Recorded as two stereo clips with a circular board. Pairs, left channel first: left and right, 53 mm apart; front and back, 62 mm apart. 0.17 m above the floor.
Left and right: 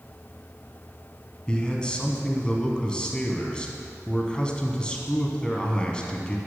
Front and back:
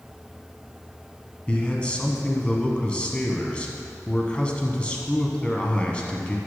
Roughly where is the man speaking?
Ahead left.